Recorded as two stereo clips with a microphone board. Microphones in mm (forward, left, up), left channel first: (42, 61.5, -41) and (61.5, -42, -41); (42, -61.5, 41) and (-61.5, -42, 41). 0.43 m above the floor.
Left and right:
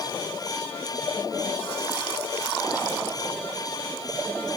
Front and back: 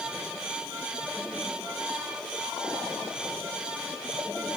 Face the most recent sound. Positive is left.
No sound to turn to.